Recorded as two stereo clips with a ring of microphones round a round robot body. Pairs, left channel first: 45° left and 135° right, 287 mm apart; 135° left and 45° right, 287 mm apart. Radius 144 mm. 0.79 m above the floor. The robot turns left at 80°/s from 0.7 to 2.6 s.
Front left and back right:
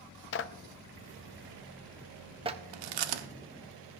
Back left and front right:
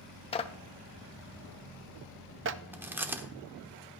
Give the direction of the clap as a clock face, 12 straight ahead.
10 o'clock.